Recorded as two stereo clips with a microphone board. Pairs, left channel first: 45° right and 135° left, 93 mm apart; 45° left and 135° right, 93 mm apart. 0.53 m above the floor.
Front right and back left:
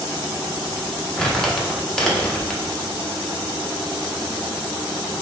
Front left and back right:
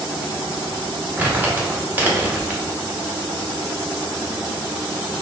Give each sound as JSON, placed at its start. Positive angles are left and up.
{"t": 1.2, "sound": "crumpling", "azimuth_deg": -110, "distance_m": 0.9}